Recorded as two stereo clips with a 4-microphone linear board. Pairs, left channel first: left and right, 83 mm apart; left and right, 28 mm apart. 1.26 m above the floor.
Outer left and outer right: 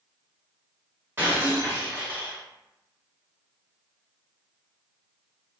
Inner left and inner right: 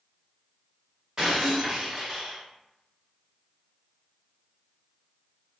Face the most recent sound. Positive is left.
turn(degrees=-25)  # may be behind; listen again after turning